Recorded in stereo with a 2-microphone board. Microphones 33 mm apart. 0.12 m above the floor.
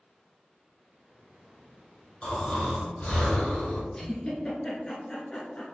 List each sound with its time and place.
2.2 s snoring: 45° left (ahead or behind), 1.9 m
3.9 s a giggle: 25° left (ahead or behind), 1.3 m